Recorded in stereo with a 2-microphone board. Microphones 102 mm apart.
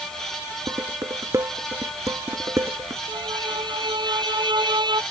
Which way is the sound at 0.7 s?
35° right (ahead or behind).